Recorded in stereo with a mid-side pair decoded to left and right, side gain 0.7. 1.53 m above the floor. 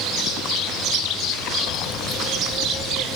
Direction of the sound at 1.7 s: 60° left.